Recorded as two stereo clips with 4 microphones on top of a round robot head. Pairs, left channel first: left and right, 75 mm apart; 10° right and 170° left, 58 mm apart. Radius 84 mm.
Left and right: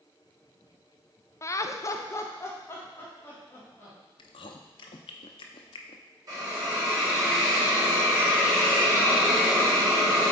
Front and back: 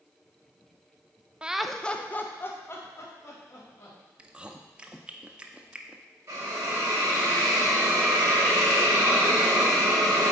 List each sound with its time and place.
1.4 s laughter: 110° left, 0.6 m; by 4.0 s 25° left, 2.5 m
4.2 s chewing: 95° left, 0.5 m
6.3 s a hiss: 135° right, 3.5 m